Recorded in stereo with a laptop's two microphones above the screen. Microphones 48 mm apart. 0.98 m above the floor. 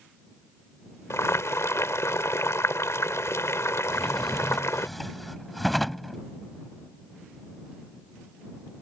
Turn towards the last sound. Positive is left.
turn(degrees=0)  # may be behind; listen again after turning